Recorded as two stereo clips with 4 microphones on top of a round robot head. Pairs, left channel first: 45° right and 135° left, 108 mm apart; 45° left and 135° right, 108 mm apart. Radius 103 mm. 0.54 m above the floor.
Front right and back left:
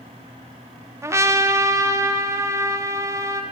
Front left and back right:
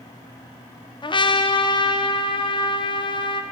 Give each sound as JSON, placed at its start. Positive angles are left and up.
{"t": 1.0, "sound": "a trumpet", "azimuth_deg": 75, "distance_m": 0.8}